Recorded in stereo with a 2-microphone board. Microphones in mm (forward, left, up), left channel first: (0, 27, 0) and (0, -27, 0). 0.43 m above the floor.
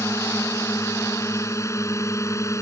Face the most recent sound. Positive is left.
turn(degrees=65)  # may be behind; listen again after turning